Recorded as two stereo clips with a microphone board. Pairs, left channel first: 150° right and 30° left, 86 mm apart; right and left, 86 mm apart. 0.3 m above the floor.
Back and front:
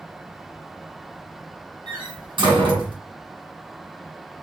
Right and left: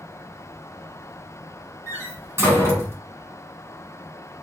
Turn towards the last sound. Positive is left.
turn(degrees=30)